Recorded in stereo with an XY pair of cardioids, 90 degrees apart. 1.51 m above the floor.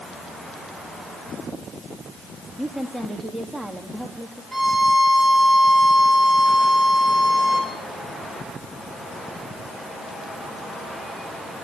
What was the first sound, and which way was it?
A woman speaking, straight ahead.